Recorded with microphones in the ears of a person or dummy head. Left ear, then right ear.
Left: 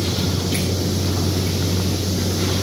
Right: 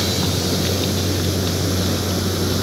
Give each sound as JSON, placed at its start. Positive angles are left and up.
{"t": 0.0, "sound": "a vehicle", "side_deg": -60}